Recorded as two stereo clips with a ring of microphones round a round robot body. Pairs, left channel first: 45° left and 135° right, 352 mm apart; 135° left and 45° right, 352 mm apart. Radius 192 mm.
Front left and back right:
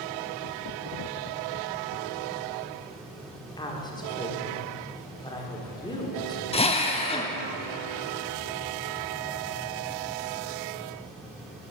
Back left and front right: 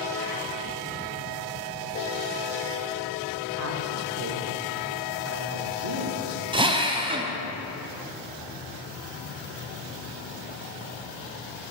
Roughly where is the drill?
Ahead.